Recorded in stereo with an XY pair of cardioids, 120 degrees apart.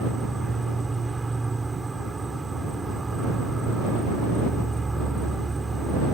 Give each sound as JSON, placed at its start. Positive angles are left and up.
{"t": 0.0, "sound": "an insect", "azimuth_deg": -20}